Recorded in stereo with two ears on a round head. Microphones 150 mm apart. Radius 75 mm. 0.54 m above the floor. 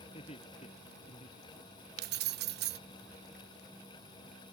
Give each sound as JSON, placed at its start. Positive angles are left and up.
{"t": 0.1, "sound": "laughter", "side_deg": 35}
{"t": 2.0, "sound": "keys jangling", "side_deg": -60}